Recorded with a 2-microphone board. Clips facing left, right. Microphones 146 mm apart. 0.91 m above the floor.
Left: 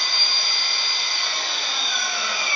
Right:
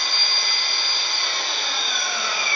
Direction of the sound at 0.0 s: 55° right (ahead or behind).